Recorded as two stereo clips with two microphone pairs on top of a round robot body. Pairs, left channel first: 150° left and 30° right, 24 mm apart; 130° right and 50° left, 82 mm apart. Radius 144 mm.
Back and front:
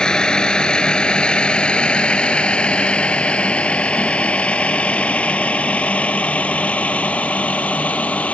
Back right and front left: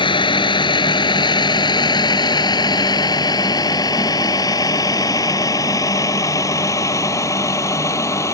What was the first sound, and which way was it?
A vehicle, 150° right.